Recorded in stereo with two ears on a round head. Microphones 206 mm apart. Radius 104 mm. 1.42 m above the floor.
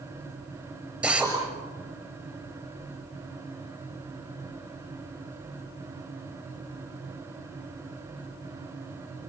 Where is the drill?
5° right (ahead or behind), 6.5 m.